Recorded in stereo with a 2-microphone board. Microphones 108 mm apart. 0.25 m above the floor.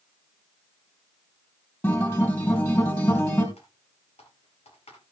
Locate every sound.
1.8 s a guitar: 20° left (ahead or behind), 4 m
3.6 s typing on a keyboard: 75° left (ahead or behind), 4 m